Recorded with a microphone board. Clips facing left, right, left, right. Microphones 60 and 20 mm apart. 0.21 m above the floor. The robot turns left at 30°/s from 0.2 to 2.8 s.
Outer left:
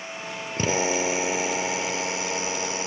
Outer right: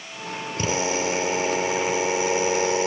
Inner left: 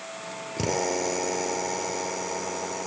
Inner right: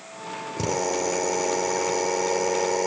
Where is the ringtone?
No ringtone in this recording.